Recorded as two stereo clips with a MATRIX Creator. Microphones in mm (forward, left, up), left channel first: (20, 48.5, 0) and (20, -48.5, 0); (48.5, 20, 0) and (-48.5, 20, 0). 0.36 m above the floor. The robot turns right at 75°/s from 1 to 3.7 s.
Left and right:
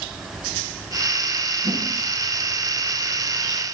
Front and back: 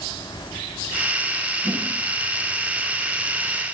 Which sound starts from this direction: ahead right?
A whoosh, at 1.6 s.